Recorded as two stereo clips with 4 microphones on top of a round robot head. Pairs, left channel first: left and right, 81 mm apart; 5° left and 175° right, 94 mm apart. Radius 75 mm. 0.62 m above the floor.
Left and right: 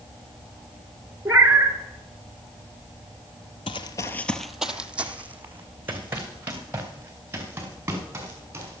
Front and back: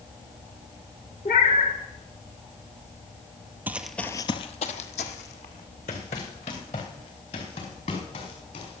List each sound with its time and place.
1.2 s a cat meowing: 20° right, 1.8 m
3.7 s running footsteps: 115° left, 0.8 m; by 8.8 s 30° right, 6.5 m